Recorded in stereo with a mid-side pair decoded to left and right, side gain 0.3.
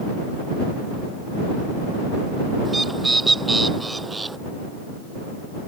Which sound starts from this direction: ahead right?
A bird, at 2.6 s.